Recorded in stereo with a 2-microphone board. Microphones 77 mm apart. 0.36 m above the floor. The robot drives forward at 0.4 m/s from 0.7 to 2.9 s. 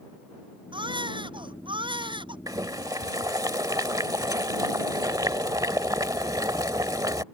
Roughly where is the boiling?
Right.